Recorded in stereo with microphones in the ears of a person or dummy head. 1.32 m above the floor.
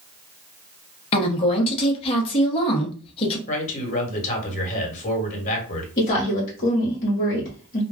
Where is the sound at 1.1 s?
30° left (ahead or behind), 0.8 m.